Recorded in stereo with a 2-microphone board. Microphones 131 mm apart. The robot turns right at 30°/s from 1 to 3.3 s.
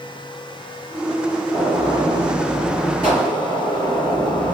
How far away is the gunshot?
About 2.5 m.